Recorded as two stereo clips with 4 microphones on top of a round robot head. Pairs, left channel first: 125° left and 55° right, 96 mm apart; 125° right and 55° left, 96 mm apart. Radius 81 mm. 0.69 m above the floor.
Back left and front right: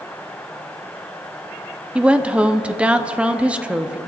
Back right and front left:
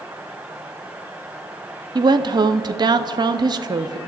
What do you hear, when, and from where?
1.9 s a woman speaking: 20° left, 0.8 m